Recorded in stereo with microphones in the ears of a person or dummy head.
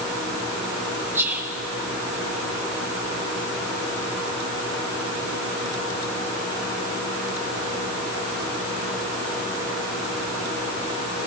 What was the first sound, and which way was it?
Whispering, 10° right (ahead or behind).